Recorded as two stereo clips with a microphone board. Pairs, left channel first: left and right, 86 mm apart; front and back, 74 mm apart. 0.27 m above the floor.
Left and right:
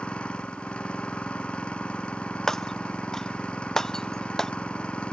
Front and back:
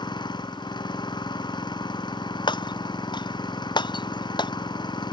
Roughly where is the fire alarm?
No fire alarm in this recording.